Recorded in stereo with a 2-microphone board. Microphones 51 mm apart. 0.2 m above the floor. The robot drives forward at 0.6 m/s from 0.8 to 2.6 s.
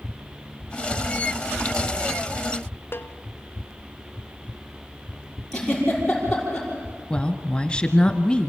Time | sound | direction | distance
2.9 | a snare drum | 45° left (ahead or behind) | 0.8 m
5.5 | a giggle | 10° left (ahead or behind) | 6.5 m
7.1 | a woman speaking | 20° left (ahead or behind) | 1.1 m